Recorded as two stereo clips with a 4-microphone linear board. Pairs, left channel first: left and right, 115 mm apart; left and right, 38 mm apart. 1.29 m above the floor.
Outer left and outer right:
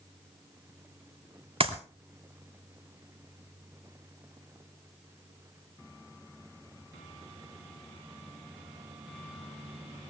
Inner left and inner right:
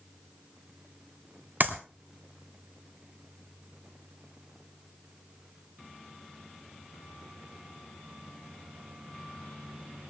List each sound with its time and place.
1.6 s a clap: 55° right (ahead or behind), 3 m